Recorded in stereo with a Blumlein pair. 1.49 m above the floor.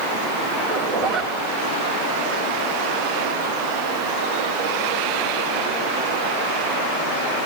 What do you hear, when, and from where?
0.6 s a zipper: 40° right, 4.5 m